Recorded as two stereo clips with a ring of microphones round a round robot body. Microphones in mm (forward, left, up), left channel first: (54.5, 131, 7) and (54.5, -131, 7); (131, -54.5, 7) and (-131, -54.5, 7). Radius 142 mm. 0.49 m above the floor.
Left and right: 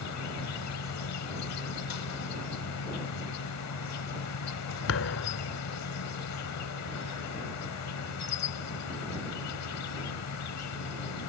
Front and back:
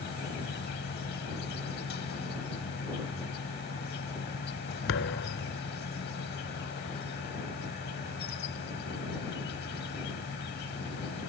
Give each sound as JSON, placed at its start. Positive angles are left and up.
{"t": 0.0, "sound": "an insect", "azimuth_deg": 60}
{"t": 4.9, "sound": "a thud", "azimuth_deg": 50}